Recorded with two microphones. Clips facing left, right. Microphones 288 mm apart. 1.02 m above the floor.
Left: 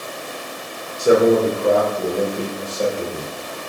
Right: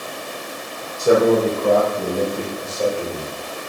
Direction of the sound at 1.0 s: 15° left (ahead or behind).